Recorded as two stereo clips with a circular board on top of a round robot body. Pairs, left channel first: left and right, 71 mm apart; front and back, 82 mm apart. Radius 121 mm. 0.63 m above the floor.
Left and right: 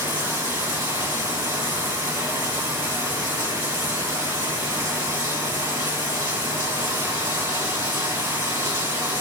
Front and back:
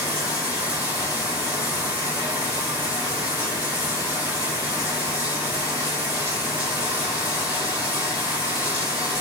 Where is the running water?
110° right, 2 m.